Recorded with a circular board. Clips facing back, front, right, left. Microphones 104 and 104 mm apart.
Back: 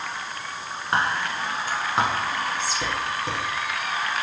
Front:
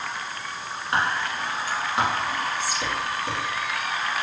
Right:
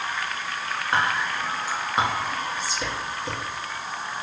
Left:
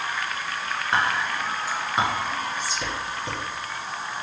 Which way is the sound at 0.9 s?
175° left.